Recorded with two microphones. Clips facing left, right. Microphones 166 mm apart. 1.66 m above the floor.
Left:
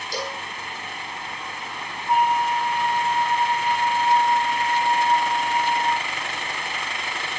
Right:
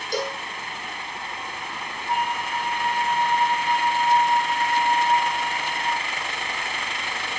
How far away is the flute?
About 2.5 m.